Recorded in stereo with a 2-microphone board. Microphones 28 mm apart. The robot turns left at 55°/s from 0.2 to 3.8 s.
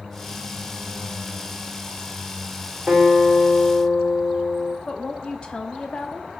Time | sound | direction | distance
2.9 | a guitar | 150° right | 2 m
4.9 | a woman speaking | 30° left (ahead or behind) | 0.7 m